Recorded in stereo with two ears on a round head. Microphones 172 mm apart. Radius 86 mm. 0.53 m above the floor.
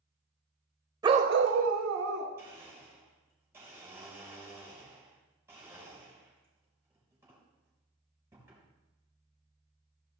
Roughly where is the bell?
I don't hear a bell.